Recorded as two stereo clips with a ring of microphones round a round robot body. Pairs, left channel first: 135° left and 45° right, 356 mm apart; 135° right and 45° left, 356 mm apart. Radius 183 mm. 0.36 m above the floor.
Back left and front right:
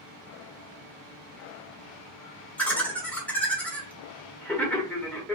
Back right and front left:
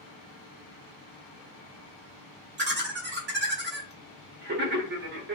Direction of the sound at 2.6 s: 55° left.